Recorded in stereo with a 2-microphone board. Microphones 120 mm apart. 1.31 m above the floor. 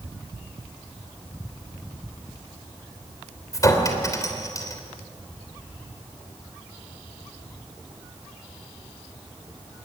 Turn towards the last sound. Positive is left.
turn(degrees=30)  # may be behind; listen again after turning